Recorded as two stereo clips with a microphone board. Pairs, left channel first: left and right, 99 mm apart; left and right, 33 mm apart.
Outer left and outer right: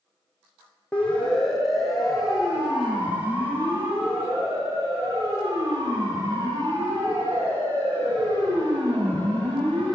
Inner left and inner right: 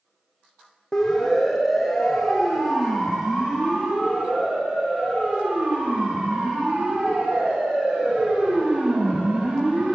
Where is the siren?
10° left (ahead or behind), 5.5 m; by 10.0 s 55° right (ahead or behind), 12.5 m.